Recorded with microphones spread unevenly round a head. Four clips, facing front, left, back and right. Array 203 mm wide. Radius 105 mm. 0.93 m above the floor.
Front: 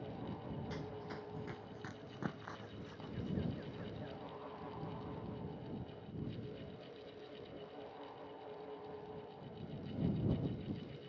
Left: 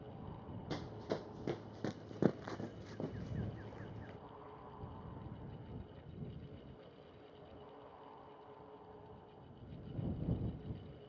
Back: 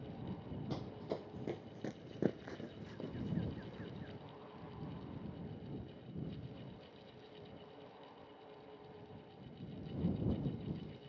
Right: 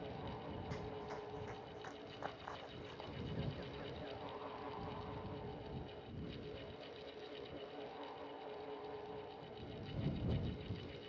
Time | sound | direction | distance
0.7 | running footsteps | 130° left | ?